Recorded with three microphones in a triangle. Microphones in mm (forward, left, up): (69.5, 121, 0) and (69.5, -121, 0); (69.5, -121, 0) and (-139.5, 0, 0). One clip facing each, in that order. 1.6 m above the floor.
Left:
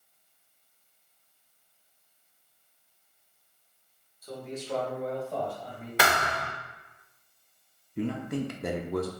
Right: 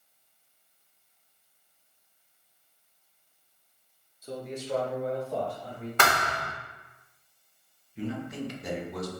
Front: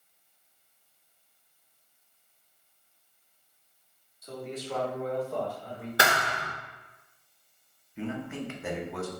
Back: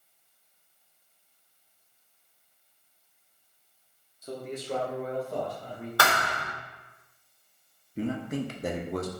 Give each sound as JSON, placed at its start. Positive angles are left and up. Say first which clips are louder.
{"t": 4.2, "sound": "a man speaking", "louder": "right 2 dB, back 1 dB", "azimuth_deg": -150, "distance_m": 1.0}
{"t": 6.0, "sound": "a thud", "louder": "left 1 dB, front 1 dB", "azimuth_deg": 20, "distance_m": 1.4}
{"t": 8.0, "sound": "a man speaking", "louder": "left 3 dB, back 4 dB", "azimuth_deg": 110, "distance_m": 0.6}